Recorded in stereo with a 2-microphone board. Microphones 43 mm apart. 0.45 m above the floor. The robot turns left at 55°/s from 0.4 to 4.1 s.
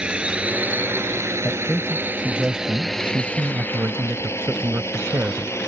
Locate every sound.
0.0 s a drone: 25° right (ahead or behind); by 5.7 s 85° left
1.4 s a man speaking: 45° left; by 5.5 s 100° right